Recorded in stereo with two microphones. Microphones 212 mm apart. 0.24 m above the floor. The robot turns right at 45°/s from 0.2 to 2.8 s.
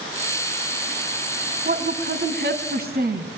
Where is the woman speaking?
115° right, 2 m; by 3.3 s 65° right, 2 m.